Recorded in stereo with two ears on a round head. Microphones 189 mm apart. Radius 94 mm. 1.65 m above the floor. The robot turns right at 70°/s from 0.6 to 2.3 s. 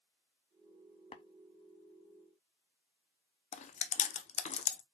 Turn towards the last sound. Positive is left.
turn(degrees=30)  # may be behind; listen again after turning